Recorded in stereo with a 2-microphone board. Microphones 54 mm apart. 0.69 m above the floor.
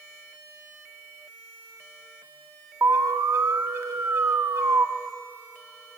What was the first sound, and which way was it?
An alarm, 60° right (ahead or behind).